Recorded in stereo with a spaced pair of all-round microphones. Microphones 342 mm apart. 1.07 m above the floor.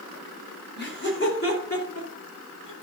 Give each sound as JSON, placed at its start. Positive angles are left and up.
{"t": 0.8, "sound": "laughter", "side_deg": 30, "distance_m": 3.5}